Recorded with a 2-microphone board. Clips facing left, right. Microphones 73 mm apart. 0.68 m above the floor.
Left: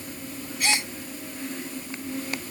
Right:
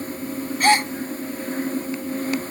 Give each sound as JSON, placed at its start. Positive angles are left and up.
{"t": 0.6, "sound": "a gasp", "side_deg": -50}